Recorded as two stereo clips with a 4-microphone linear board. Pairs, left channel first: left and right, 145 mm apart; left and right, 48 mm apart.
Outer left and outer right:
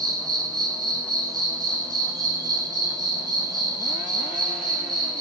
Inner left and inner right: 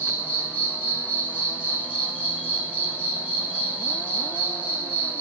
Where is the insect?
25° right (ahead or behind), 1.2 m.